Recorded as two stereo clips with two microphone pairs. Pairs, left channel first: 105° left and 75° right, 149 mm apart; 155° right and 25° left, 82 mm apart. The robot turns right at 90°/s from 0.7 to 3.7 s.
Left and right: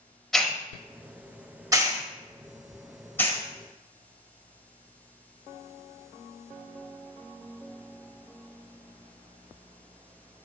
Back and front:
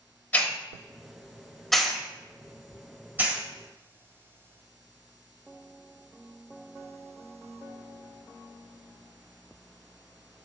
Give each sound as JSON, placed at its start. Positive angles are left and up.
{"t": 0.3, "sound": "a hiss", "azimuth_deg": -170, "distance_m": 1.3}